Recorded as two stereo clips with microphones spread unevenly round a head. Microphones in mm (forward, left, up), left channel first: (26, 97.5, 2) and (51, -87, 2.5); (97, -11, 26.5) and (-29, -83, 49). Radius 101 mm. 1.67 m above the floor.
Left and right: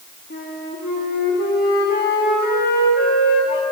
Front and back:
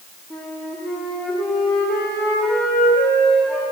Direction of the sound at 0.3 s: 125° left.